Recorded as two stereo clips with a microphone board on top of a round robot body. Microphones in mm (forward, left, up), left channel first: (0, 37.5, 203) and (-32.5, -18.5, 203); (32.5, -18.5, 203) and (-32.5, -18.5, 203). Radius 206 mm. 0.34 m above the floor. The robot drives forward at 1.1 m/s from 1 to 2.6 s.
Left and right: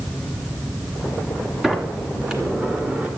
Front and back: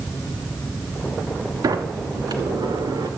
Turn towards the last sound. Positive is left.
turn(degrees=165)